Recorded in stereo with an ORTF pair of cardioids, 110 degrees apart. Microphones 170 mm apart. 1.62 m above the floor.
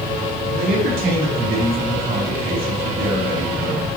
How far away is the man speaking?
About 2.5 m.